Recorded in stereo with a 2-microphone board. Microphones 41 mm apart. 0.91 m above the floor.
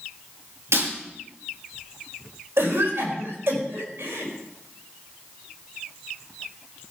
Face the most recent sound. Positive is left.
turn(degrees=-70)  # may be behind; listen again after turning